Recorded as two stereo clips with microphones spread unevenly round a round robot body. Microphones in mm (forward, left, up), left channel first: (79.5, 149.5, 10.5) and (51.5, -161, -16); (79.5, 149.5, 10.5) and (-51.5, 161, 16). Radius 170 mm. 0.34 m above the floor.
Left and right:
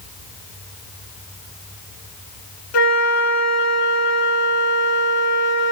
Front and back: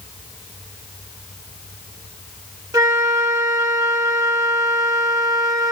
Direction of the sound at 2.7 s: 105° left.